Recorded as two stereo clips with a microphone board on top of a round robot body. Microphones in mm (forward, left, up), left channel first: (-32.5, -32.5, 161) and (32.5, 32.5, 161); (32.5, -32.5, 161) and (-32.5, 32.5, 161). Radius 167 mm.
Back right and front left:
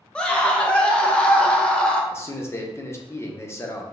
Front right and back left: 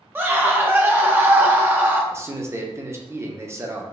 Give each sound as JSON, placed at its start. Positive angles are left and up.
{"t": 0.1, "sound": "a scream", "azimuth_deg": 165, "distance_m": 0.7}
{"t": 2.1, "sound": "a man speaking", "azimuth_deg": 180, "distance_m": 0.9}